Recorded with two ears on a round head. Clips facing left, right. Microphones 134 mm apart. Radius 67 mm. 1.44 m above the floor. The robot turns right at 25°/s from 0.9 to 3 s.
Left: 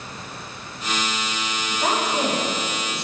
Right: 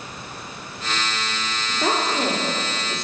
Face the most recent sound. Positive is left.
turn(degrees=-50)